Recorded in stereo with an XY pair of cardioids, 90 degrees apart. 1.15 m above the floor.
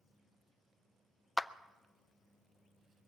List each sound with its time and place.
1.4 s a clap: 15° left, 0.5 m